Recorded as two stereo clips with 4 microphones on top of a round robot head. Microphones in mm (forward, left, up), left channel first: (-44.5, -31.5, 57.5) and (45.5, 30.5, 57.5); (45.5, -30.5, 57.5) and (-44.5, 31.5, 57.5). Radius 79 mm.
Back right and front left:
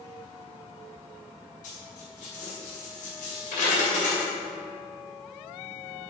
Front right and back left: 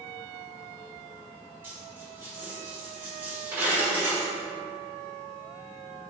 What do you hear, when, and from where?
1.6 s a dropped coin: 145° right, 2.5 m